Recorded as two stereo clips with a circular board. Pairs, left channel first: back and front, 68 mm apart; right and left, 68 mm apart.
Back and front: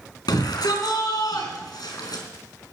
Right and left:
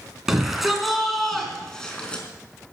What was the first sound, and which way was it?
A shout, 175° left.